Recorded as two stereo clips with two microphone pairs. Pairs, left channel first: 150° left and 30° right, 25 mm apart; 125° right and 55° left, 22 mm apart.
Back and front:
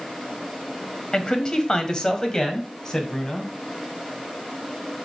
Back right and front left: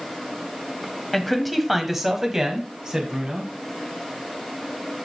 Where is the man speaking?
160° left, 1.5 m; by 3.5 s 90° left, 2 m.